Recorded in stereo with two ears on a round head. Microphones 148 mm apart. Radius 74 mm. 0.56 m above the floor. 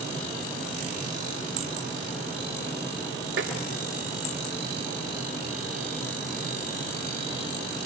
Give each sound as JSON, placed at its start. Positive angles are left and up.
{"t": 3.4, "sound": "tapping", "side_deg": -85, "distance_m": 6.5}